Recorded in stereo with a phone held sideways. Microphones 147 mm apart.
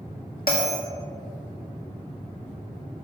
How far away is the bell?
About 1.8 m.